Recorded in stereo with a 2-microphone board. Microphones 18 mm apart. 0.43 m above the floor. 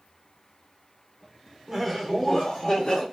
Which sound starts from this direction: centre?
Laughter, at 1.7 s.